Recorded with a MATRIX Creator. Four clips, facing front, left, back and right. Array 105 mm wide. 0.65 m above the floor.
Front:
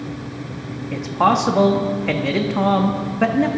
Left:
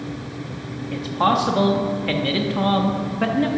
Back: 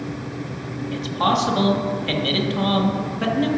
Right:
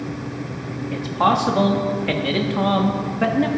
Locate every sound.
0.9 s a man speaking: 10° right, 0.7 m